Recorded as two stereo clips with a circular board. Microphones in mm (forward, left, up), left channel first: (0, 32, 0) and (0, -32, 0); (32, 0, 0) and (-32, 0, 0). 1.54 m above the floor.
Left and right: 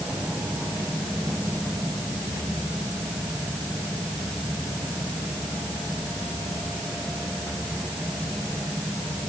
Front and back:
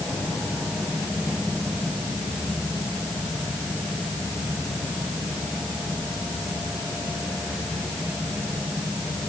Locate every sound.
Only background noise.